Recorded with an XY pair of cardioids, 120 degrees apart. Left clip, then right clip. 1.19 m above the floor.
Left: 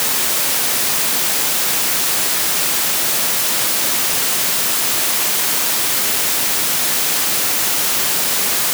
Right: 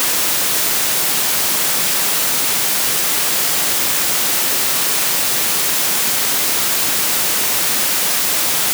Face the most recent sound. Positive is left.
No sound to turn to.